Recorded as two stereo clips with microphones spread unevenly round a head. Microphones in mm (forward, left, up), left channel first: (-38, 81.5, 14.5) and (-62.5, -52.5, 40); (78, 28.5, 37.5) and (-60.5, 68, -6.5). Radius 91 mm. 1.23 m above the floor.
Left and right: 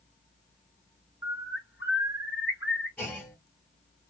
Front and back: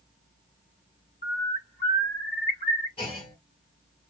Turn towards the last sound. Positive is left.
turn(degrees=-10)